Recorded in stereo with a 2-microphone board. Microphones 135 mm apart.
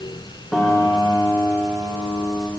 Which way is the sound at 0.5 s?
10° left (ahead or behind).